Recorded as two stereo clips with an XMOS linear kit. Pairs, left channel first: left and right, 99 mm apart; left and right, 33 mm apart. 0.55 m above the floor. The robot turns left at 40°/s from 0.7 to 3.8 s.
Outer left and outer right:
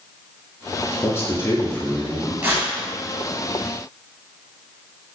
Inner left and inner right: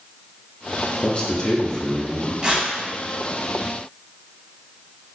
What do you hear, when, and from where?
1.0 s a man speaking: 25° left (ahead or behind), 0.7 m; by 2.3 s 10° left (ahead or behind), 0.7 m
2.4 s tearing paper: 20° right (ahead or behind), 0.8 m; by 2.7 s 30° right (ahead or behind), 0.8 m